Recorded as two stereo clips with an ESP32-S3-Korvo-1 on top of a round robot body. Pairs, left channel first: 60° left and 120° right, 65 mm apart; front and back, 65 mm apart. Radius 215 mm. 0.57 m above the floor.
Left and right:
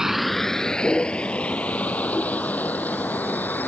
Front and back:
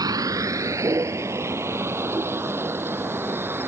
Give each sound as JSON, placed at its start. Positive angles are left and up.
{"t": 0.0, "sound": "a vehicle", "azimuth_deg": 160}